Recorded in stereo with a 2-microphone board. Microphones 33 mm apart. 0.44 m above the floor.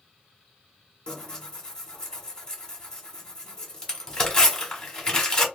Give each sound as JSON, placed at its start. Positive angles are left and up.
{"t": 1.1, "sound": "tearing paper", "side_deg": 20, "distance_m": 1.2}